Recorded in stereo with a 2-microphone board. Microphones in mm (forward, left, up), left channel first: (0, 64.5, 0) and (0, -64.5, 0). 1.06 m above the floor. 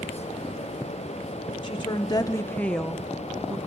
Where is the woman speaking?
40° left (ahead or behind), 0.8 m; by 3.6 s 15° right (ahead or behind), 1.0 m.